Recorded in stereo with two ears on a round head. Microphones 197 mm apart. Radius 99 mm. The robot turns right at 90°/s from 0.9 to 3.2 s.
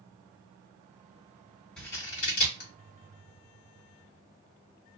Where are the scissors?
5° left (ahead or behind), 1.7 m; by 2.7 s 50° left (ahead or behind), 1.7 m.